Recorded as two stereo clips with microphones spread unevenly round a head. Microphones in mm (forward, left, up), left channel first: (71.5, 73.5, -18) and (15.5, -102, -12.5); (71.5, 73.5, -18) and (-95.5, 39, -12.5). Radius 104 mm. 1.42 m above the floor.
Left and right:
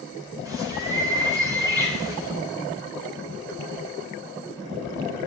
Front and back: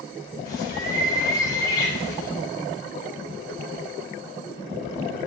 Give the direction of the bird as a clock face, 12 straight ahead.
1 o'clock.